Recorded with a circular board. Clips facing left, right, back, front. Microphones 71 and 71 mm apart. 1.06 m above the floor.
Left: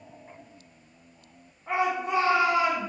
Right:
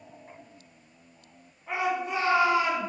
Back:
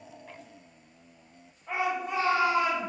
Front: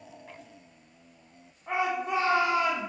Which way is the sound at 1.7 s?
40° left.